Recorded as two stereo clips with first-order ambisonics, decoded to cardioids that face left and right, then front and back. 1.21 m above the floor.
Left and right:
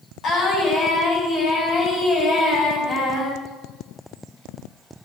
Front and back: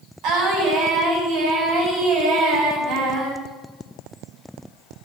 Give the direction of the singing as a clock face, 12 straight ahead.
7 o'clock.